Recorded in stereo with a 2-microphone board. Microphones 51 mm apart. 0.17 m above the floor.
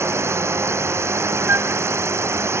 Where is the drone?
60° right (ahead or behind).